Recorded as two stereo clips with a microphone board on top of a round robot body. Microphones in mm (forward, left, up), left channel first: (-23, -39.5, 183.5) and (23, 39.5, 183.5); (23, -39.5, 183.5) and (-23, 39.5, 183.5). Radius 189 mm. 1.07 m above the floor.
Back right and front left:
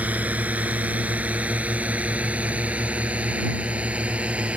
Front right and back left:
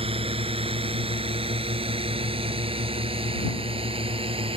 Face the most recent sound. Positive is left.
turn(degrees=140)